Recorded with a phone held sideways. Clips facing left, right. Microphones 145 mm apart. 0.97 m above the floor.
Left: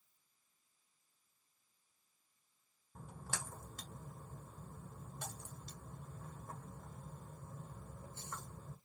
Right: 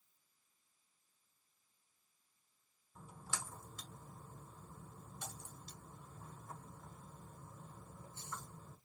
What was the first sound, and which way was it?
A splash, 55° left (ahead or behind).